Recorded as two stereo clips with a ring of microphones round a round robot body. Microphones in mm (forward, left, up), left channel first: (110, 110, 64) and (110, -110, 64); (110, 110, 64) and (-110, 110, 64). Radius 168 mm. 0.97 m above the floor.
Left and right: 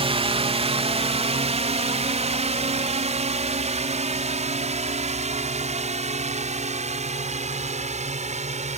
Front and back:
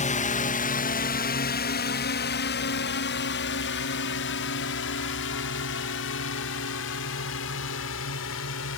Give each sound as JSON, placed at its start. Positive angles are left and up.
{"t": 0.0, "sound": "a drone", "azimuth_deg": -40}